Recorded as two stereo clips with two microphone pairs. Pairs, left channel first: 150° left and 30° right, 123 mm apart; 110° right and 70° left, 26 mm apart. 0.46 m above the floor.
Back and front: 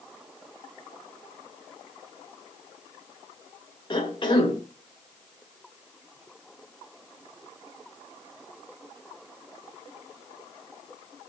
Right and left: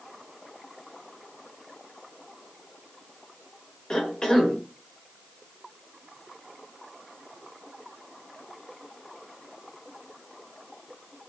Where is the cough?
170° right, 1.6 m.